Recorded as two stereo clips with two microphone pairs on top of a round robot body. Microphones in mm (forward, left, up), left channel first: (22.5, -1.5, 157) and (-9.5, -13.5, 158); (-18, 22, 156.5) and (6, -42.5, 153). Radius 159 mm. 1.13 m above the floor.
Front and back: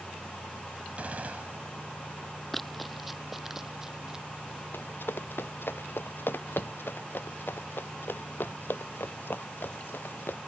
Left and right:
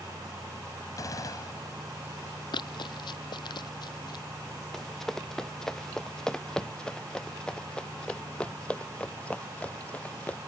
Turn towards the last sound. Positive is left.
turn(degrees=40)